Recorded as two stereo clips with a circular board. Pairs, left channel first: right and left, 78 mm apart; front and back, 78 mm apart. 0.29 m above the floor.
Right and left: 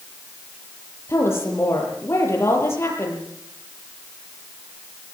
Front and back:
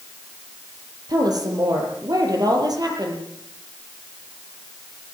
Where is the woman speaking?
145° right, 8 m.